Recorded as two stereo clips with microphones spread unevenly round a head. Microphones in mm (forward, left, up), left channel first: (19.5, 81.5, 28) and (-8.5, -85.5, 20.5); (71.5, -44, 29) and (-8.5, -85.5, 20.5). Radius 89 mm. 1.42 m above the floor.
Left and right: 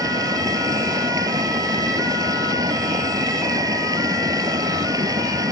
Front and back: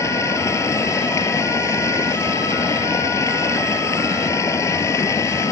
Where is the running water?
30° right.